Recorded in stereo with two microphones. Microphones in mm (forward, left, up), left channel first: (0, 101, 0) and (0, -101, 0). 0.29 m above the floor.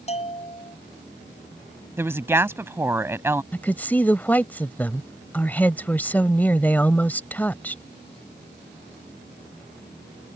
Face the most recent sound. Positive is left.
turn(degrees=10)  # may be behind; listen again after turning